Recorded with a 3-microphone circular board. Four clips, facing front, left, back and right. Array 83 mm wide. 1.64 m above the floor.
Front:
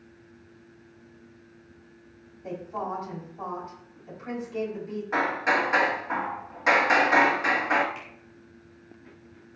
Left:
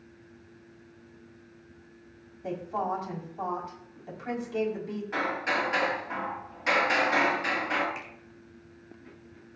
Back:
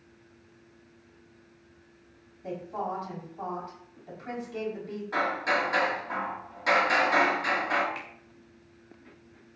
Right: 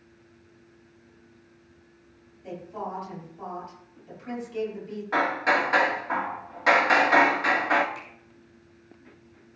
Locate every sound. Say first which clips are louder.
2.4 s a woman speaking: left 4 dB, front 1 dB; 100° left, 5 m
5.1 s hammering: right 6 dB, front 3 dB; 60° right, 2 m
8.0 s a finger snap: even, back 1 dB; 145° left, 3 m